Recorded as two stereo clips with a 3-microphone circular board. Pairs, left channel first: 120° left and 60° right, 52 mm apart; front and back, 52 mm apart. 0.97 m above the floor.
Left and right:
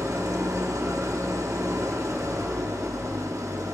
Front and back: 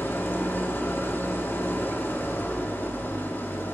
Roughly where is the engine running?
Ahead right.